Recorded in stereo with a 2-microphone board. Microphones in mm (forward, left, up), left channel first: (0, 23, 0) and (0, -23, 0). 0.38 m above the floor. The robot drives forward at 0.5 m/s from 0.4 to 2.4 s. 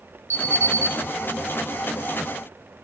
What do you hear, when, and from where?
0.3 s an alarm: 70° right (ahead or behind), 3 m; by 0.9 s 65° right (ahead or behind), 3 m